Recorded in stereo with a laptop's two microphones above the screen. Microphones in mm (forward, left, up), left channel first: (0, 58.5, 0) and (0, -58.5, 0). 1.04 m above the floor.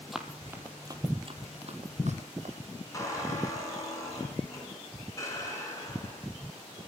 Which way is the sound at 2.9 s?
25° left (ahead or behind).